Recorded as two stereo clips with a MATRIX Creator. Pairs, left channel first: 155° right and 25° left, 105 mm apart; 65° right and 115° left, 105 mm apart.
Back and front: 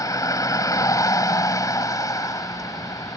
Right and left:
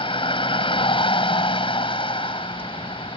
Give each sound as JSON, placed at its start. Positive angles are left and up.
{"t": 0.0, "sound": "a vehicle", "azimuth_deg": -100}